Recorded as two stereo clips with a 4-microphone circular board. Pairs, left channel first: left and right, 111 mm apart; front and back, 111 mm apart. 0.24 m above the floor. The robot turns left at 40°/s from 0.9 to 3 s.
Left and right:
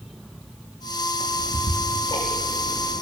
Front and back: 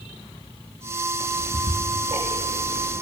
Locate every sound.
1.2 s ticking: straight behind, 4 m; by 3.0 s 105° left, 4 m